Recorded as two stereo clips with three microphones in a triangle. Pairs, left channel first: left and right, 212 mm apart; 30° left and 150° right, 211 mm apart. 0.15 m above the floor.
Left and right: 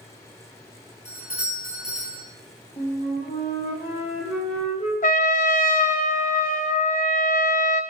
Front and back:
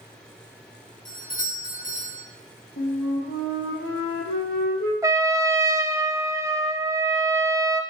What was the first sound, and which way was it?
A doorbell, 35° left.